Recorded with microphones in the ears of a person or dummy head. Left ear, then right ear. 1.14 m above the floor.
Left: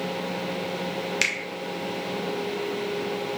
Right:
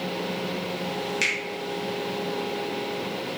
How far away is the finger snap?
About 0.5 m.